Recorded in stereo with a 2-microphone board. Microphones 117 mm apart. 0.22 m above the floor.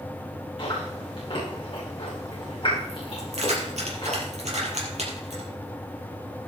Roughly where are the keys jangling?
Right.